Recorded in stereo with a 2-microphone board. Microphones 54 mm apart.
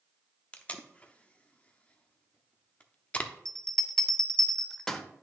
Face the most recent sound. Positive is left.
turn(degrees=10)  # may be behind; listen again after turning